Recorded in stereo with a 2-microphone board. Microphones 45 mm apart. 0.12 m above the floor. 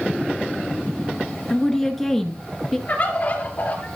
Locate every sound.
1.5 s a woman speaking: 5° left (ahead or behind), 1.3 m
2.9 s a bird: 35° left (ahead or behind), 2.5 m